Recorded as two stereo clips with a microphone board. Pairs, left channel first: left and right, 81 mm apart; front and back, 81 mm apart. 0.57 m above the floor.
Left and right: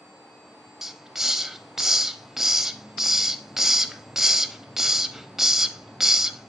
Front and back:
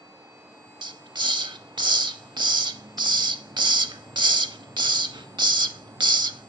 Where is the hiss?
175° right, 0.6 m.